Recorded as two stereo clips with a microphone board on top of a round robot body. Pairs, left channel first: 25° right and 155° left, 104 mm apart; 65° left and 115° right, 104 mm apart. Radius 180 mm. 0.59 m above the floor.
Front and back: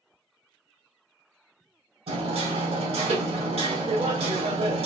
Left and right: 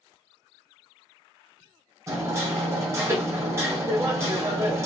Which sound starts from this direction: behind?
Hammering, at 2.1 s.